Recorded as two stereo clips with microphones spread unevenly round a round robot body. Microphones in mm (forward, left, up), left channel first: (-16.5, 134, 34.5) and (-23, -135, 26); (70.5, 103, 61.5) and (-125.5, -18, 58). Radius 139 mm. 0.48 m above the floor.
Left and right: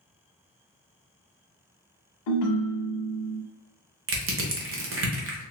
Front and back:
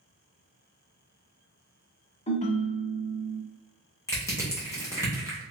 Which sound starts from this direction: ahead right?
Crushing, at 4.1 s.